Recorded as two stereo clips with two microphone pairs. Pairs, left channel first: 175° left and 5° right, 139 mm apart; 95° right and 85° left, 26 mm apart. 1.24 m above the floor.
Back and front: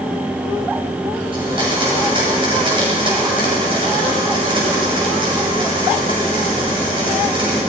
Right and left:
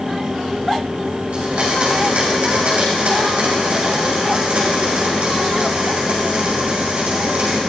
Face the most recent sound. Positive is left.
turn(degrees=45)